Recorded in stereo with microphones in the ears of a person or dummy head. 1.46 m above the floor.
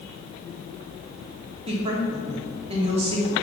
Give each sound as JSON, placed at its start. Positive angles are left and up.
{"t": 1.7, "sound": "a woman speaking", "side_deg": -35, "distance_m": 1.5}